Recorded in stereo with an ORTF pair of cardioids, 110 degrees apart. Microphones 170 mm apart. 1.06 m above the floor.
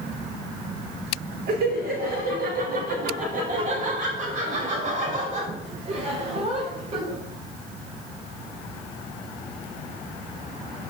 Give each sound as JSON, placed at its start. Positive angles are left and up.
{"t": 1.5, "sound": "laughter", "azimuth_deg": -65, "distance_m": 4.0}